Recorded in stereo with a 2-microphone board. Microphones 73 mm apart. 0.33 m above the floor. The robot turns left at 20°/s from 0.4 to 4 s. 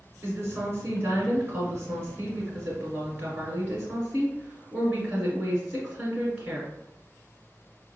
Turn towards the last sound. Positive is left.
turn(degrees=-150)